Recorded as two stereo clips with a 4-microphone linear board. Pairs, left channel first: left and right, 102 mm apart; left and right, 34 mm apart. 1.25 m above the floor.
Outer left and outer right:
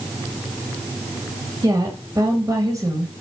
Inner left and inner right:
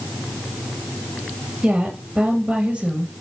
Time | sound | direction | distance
1.6 | a woman speaking | 40° right (ahead or behind) | 1.7 m